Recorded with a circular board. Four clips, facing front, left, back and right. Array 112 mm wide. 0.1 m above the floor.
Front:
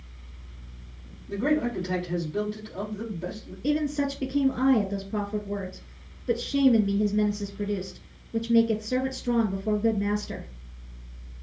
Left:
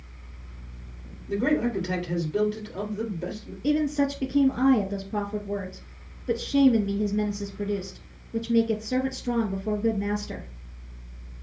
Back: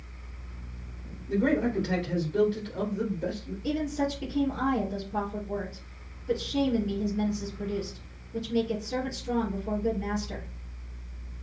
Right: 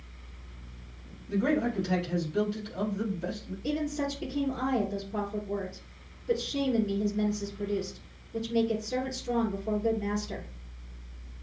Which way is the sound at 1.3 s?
95° left.